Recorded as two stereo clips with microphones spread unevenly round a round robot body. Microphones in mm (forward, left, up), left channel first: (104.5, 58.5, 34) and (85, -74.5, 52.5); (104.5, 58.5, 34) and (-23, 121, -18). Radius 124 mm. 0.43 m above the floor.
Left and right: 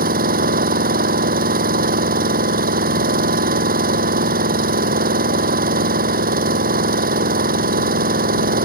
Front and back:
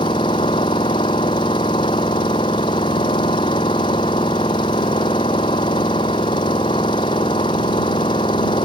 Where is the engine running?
100° right.